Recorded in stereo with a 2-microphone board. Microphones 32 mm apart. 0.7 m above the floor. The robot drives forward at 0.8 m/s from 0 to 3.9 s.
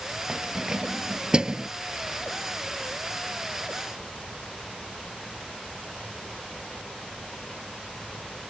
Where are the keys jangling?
25° right (ahead or behind).